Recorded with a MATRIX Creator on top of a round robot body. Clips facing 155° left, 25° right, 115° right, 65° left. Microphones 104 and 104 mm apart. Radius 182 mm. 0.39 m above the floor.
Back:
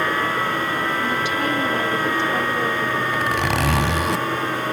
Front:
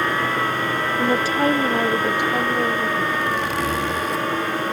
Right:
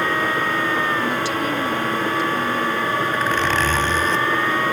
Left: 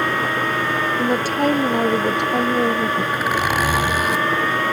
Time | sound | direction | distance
1.0 | a woman speaking | 20° left | ?
3.1 | a zipper | 145° left | ?